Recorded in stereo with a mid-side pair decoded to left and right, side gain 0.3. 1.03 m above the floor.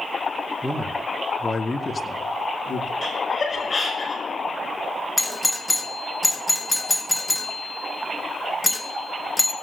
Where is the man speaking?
Straight ahead, 2.5 m; by 2.9 s 70° left, 2 m.